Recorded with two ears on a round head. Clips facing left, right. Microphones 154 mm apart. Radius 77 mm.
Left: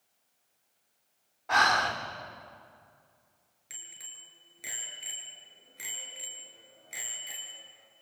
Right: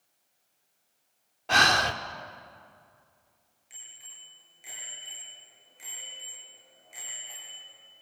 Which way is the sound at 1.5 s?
40° right (ahead or behind).